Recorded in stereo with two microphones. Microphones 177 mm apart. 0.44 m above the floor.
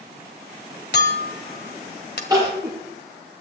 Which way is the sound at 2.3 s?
20° right (ahead or behind).